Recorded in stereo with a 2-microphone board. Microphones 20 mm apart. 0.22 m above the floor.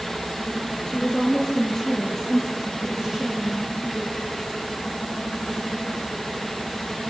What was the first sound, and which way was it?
A woman speaking, 35° left (ahead or behind).